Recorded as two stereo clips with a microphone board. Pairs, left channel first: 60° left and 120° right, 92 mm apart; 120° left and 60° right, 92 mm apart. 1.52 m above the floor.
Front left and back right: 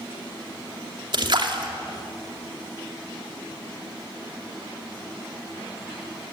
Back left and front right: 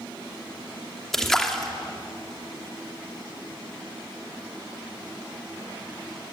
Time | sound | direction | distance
1.1 | a splash | 155° right | 2.5 m